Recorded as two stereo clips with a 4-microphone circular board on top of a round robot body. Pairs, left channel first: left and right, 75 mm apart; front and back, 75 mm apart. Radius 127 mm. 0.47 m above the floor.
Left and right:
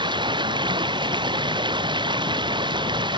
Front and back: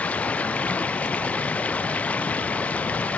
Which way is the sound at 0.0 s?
75° right.